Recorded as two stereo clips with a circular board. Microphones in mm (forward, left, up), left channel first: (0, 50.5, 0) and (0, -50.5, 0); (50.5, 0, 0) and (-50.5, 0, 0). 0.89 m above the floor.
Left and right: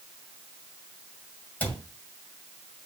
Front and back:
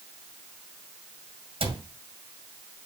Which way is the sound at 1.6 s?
165° left.